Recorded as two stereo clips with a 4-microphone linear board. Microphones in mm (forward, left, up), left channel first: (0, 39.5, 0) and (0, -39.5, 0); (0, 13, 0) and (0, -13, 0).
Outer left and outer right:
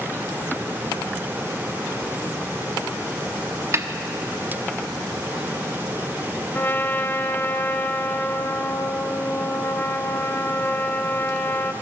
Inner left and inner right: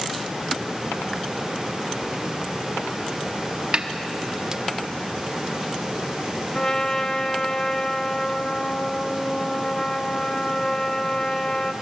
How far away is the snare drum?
About 1.3 m.